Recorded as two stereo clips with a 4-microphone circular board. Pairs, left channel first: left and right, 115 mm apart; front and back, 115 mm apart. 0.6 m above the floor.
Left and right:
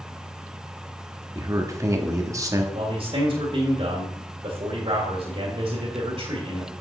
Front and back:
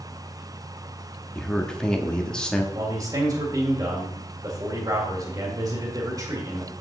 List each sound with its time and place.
1.4 s a man speaking: 75° right, 1.1 m
2.7 s a man speaking: 125° right, 1.8 m